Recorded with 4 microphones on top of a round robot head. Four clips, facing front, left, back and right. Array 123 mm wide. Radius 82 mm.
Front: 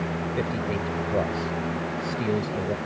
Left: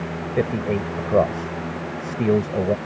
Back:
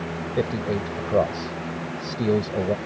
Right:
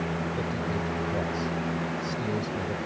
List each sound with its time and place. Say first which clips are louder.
0.4 s a man speaking: left 8 dB, back 6 dB; 115° left